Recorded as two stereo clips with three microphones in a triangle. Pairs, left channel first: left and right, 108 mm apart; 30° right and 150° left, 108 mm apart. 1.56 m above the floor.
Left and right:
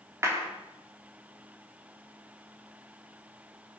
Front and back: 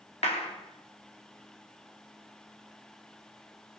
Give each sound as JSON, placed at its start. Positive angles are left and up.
{"t": 0.2, "sound": "a clap", "azimuth_deg": -25, "distance_m": 3.0}